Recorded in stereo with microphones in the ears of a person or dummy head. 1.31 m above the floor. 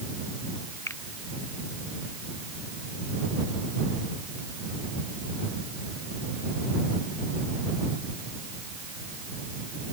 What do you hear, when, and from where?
0.9 s a finger snap: 10° left (ahead or behind)